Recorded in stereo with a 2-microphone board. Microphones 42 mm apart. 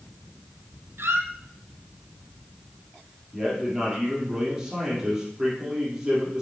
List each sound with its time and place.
1.0 s a squeak: 80° right, 0.7 m
3.3 s a man speaking: 10° right (ahead or behind), 3.5 m